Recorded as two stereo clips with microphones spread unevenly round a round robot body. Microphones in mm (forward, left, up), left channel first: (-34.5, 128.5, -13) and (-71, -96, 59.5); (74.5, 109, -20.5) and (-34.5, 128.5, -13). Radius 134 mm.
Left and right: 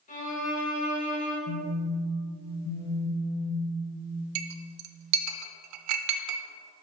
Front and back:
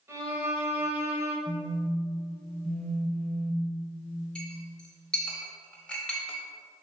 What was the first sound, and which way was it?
A violin, 105° left.